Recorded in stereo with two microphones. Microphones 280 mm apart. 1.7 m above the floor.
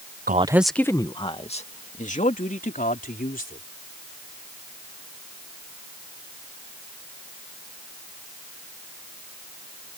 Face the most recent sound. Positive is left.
turn(degrees=30)  # may be behind; listen again after turning